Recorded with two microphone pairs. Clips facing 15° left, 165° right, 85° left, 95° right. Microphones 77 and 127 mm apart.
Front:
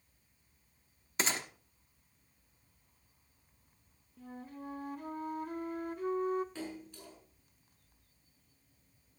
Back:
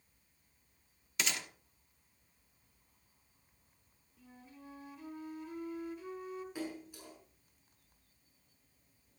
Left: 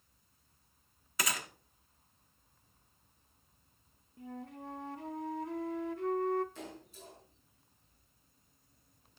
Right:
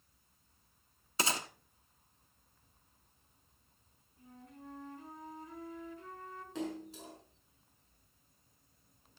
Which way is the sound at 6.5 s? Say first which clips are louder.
Back 1 dB, right 8 dB; 85° right.